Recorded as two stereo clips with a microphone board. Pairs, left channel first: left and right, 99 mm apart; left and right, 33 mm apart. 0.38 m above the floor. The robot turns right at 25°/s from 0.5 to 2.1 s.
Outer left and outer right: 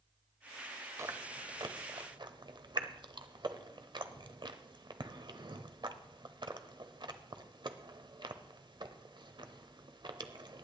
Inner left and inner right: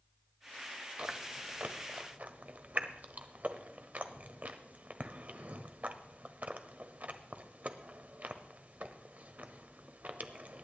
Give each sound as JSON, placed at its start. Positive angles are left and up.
{"t": 1.0, "sound": "chewing", "side_deg": -30, "distance_m": 0.9}